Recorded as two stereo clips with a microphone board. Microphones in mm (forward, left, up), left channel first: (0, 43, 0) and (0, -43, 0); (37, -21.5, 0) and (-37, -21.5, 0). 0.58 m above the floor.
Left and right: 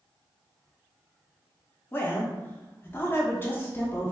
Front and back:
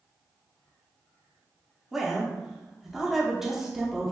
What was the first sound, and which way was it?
A woman speaking, 100° left.